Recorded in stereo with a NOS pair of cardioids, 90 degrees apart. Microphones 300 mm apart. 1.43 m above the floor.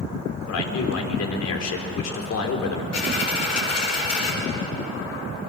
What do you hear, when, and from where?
0.5 s a man speaking: 60° left, 4 m
2.9 s a dropped coin: 60° left, 8 m